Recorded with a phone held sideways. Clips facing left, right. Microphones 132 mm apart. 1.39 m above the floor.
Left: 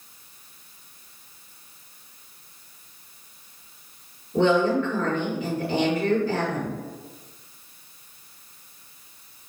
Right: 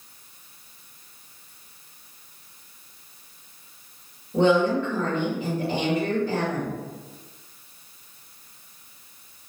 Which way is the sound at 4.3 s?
25° right (ahead or behind).